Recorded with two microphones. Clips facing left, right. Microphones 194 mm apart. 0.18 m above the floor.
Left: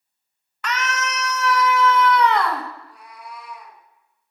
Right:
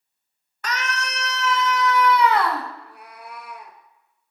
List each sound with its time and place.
0.6 s a scream: 40° right (ahead or behind), 1.3 m; by 2.6 s centre (ahead or behind), 1.2 m
2.7 s a cat meowing: 65° right (ahead or behind), 1.4 m